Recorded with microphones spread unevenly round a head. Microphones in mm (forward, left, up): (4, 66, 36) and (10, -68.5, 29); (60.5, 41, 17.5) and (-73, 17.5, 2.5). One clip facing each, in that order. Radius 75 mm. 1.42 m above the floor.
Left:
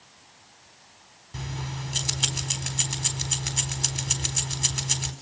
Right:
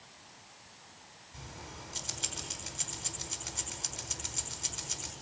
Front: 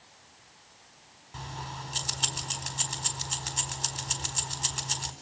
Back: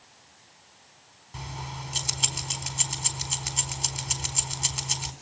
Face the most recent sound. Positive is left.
turn(degrees=105)